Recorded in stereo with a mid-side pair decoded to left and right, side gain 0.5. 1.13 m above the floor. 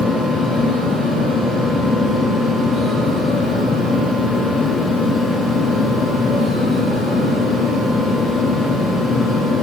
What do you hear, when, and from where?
0.0 s a fan: 35° left, 0.7 m